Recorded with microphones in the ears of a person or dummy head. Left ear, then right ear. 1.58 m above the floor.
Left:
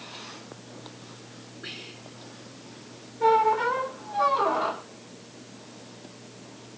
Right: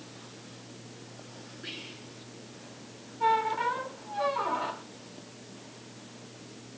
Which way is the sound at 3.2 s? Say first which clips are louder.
Left 5 dB; 10° left (ahead or behind).